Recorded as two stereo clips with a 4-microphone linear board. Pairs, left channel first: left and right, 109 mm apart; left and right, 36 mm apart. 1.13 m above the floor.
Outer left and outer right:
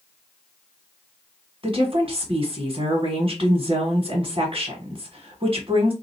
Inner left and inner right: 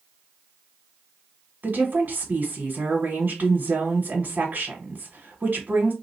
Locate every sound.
1.6 s a woman speaking: 50° right (ahead or behind), 1.2 m